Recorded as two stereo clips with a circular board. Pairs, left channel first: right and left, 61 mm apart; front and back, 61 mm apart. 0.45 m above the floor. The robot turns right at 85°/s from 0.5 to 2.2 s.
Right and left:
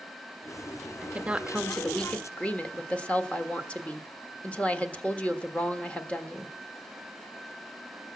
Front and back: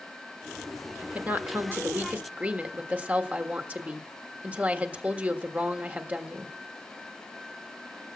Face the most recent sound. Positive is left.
turn(degrees=-140)